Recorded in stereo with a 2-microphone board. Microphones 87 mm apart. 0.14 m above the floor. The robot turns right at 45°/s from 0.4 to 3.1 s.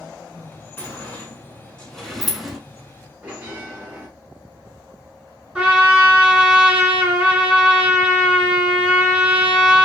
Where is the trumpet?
10° right (ahead or behind), 1.8 m.